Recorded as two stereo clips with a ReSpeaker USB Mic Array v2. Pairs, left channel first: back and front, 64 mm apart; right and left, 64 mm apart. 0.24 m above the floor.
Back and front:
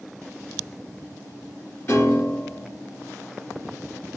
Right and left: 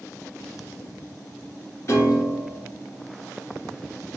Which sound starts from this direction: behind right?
A piano, at 1.9 s.